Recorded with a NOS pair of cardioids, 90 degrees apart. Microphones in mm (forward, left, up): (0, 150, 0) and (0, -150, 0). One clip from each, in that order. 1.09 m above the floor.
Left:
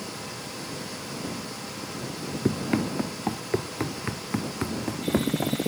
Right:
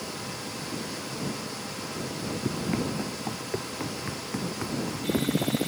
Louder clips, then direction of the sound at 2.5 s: Left 5 dB; 50° left.